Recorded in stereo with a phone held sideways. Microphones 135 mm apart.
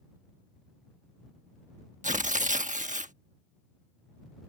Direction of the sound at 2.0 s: 70° right (ahead or behind).